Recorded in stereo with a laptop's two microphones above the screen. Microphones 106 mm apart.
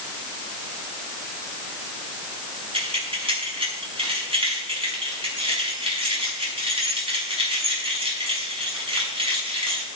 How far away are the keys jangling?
About 5 m.